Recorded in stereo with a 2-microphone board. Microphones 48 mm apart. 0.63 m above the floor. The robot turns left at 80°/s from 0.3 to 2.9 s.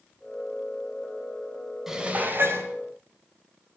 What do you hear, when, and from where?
1.9 s dishes clattering: 10° right, 1.6 m; by 2.7 s 75° right, 1.6 m